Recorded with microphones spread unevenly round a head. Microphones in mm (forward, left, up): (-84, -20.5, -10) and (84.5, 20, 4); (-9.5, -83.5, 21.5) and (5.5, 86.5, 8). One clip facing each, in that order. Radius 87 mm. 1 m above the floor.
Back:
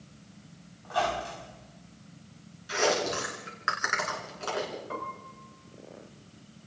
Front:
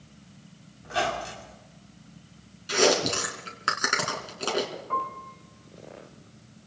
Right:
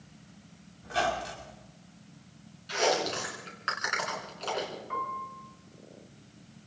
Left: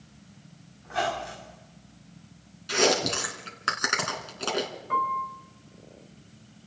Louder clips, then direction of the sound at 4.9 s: Front 5 dB, left 7 dB; 125° left.